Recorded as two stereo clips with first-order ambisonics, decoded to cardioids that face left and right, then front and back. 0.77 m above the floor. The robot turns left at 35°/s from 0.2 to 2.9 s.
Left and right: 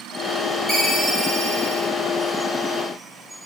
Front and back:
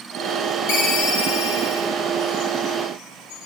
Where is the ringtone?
5° left, 2.5 m; by 1.9 s 35° right, 2.5 m.